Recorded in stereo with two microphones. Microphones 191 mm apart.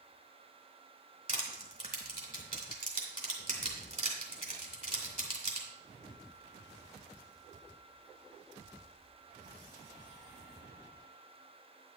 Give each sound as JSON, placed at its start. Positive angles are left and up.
{"t": 1.3, "sound": "crushing", "side_deg": -40, "distance_m": 2.5}